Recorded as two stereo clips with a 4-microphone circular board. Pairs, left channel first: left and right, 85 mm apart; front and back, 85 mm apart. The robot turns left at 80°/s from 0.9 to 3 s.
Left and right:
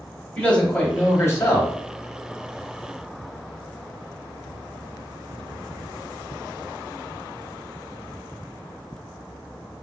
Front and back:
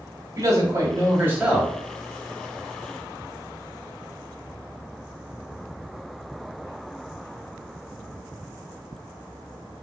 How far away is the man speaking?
About 1.4 m.